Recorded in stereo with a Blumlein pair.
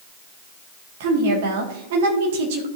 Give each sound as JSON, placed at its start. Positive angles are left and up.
{"t": 1.0, "sound": "a woman speaking", "azimuth_deg": -55, "distance_m": 2.0}